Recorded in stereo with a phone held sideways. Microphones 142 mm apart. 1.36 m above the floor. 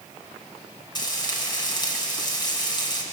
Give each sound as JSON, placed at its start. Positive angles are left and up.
{"t": 0.9, "sound": "frying", "side_deg": 35, "distance_m": 3.5}